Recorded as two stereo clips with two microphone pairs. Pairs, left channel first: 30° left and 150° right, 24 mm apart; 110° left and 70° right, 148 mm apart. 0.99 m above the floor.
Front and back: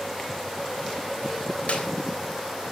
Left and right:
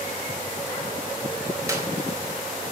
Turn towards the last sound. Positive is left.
turn(degrees=0)